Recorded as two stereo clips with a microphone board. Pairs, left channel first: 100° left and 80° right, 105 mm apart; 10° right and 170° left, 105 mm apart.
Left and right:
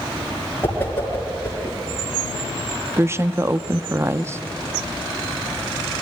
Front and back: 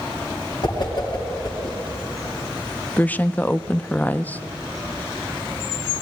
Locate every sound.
0.6 s a whoosh: 30° left, 3 m
3.0 s a woman speaking: 65° right, 0.6 m